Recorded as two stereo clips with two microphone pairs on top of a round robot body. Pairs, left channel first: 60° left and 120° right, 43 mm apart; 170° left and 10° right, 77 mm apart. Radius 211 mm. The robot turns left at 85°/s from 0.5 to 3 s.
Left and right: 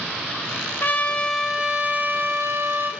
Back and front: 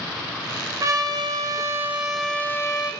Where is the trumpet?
25° left, 1.8 m; by 2.9 s 150° right, 1.8 m.